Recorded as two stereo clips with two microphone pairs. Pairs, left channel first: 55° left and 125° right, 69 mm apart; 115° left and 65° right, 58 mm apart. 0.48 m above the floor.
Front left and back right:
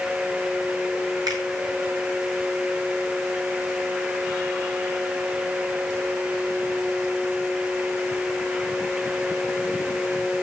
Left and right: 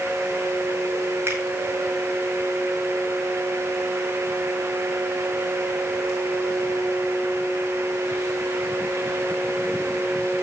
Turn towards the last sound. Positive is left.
turn(degrees=-115)